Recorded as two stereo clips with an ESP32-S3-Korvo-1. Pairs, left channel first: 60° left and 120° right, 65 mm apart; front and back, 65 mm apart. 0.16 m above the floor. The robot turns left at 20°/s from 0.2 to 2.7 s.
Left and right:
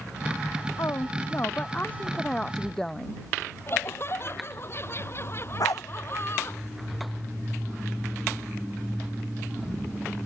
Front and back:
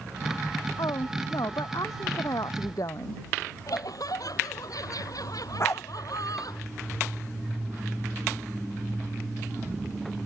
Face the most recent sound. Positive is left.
turn(degrees=45)